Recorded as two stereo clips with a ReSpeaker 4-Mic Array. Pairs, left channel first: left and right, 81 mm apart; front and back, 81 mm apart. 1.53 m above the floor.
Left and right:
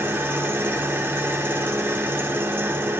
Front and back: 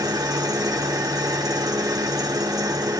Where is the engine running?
150° right, 1.1 m.